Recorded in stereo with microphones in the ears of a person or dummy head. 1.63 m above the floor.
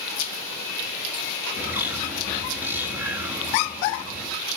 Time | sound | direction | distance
1.6 | a bird | 10° right (ahead or behind) | 9.5 m